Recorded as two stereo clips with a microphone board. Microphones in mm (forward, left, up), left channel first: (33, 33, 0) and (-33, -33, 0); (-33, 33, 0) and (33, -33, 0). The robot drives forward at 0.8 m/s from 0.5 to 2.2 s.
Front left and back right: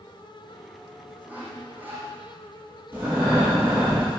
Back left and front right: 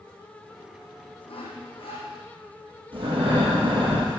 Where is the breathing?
65° right, 5 m.